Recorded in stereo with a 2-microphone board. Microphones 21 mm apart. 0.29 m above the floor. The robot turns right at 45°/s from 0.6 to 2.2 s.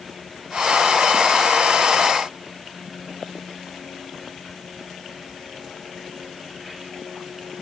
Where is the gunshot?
No gunshot in this recording.